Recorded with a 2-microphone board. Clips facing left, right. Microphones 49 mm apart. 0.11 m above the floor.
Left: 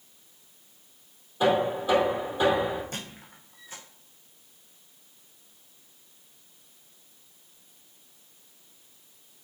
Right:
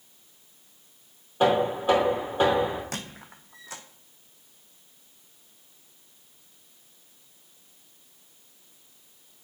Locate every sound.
1.4 s knocking: 40° right (ahead or behind), 3 m
2.9 s a squeak: 75° right (ahead or behind), 1.4 m